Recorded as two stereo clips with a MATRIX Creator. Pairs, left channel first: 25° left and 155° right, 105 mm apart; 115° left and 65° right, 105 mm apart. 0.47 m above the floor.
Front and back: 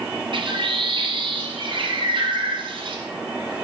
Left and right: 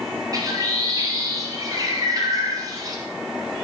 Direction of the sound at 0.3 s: 120° right.